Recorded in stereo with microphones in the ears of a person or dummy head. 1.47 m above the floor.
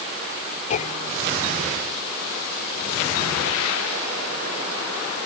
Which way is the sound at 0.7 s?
40° left (ahead or behind).